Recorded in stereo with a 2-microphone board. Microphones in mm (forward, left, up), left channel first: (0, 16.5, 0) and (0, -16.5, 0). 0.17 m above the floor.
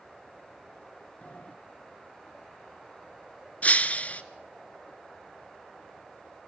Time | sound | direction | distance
1.2 | a sliding door | 50° left (ahead or behind) | 1.5 m
3.6 | breaking glass | 50° left (ahead or behind) | 1.0 m